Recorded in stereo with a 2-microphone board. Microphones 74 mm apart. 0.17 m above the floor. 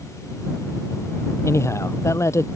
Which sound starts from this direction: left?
A man speaking, at 1.4 s.